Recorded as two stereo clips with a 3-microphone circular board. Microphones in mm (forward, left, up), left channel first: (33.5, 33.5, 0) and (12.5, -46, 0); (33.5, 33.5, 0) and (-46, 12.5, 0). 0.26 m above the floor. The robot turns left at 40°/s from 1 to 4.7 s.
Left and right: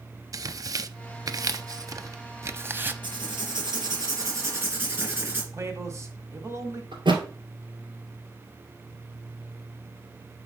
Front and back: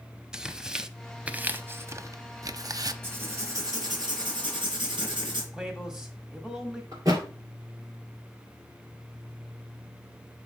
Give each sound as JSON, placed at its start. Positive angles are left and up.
{"t": 0.3, "sound": "tearing paper", "azimuth_deg": -90, "distance_m": 0.5}
{"t": 3.0, "sound": "writing", "azimuth_deg": -100, "distance_m": 3.0}
{"t": 5.5, "sound": "a man speaking", "azimuth_deg": -90, "distance_m": 1.4}
{"t": 6.9, "sound": "a thud", "azimuth_deg": -120, "distance_m": 2.0}